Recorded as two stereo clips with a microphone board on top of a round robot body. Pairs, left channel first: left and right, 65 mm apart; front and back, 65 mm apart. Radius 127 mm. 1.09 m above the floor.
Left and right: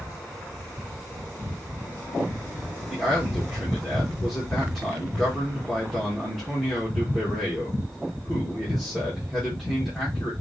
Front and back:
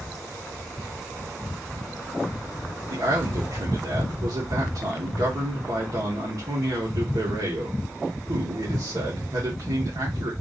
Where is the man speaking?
Straight behind, 1.6 m.